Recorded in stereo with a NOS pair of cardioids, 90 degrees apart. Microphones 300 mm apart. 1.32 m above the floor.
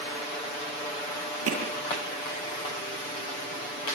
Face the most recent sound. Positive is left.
turn(degrees=-55)